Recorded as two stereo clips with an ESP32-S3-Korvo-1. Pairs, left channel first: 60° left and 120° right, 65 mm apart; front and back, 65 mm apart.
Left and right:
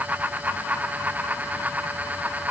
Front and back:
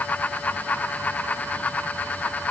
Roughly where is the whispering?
I don't hear whispering.